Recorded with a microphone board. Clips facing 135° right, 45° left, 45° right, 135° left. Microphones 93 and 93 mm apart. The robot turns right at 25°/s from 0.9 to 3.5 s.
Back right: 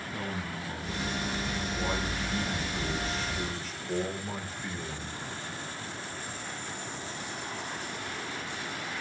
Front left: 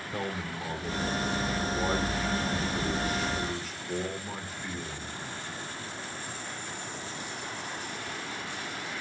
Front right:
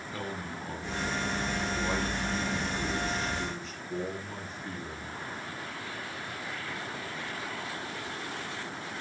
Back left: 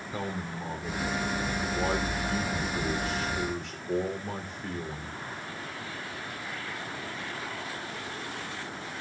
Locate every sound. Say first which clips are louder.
0.1 s a man speaking: front left 3 dB, back left 3 dB; 65° left, 3.5 m; by 5.2 s 130° left, 3.5 m